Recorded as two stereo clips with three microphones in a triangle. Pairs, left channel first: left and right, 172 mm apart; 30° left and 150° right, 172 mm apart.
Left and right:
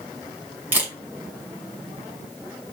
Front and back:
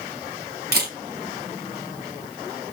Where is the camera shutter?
170° right, 2.5 m.